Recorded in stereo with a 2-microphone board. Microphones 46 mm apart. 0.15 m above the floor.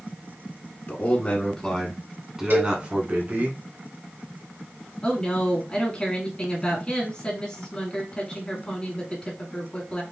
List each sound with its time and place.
0.9 s a man speaking: 35° left (ahead or behind), 1.5 m; by 3.5 s 45° right (ahead or behind), 1.6 m
2.5 s a cowbell: 50° right (ahead or behind), 3 m
5.0 s a woman speaking: 25° left (ahead or behind), 1.8 m